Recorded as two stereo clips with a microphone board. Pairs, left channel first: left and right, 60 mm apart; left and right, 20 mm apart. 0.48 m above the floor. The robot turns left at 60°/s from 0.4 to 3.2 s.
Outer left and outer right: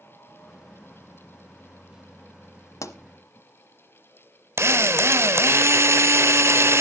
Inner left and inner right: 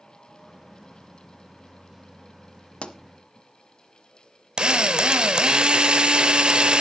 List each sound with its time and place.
2.8 s a pop: 70° left (ahead or behind), 1.0 m; by 3.0 s 75° left (ahead or behind), 1.0 m
4.6 s a drill: 50° right (ahead or behind), 0.7 m